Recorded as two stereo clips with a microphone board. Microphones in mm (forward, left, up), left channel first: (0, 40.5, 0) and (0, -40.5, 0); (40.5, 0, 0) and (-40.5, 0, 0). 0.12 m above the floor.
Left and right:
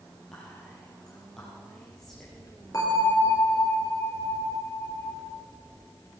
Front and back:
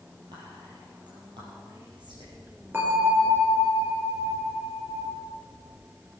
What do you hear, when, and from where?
0.3 s whispering: 175° left, 4.5 m
2.7 s a bell: 120° left, 3 m